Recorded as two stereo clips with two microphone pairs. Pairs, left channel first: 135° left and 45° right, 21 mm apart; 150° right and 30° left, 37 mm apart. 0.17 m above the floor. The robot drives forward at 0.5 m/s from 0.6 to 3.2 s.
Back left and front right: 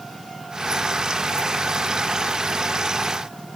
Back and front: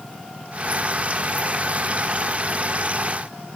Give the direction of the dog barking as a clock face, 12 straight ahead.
No dog barking in this recording.